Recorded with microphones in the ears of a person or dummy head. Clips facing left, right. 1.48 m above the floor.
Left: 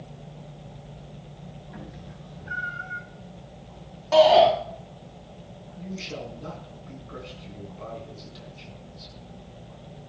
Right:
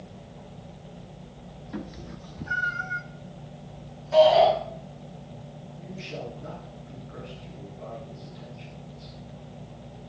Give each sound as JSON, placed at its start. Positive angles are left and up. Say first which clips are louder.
{"t": 1.7, "sound": "a cat meowing", "louder": "right 8 dB", "side_deg": -65, "distance_m": 2.0}
{"t": 4.1, "sound": "a shout", "louder": "left 1 dB", "side_deg": 75, "distance_m": 3.0}
{"t": 5.8, "sound": "a man speaking", "louder": "left 2 dB", "side_deg": 65, "distance_m": 8.0}